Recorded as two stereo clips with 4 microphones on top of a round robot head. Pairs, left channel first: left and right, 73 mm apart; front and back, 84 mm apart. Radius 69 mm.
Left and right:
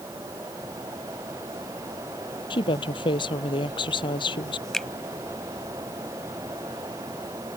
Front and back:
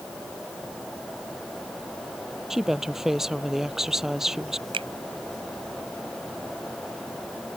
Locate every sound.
2.5 s a woman speaking: 95° left
4.7 s a finger snap: 175° left